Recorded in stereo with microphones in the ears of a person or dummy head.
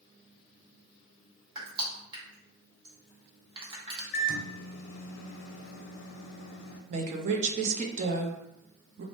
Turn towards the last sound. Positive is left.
turn(degrees=-45)  # may be behind; listen again after turning